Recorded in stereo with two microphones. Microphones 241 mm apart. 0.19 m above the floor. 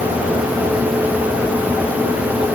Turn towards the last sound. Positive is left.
No sound to turn to.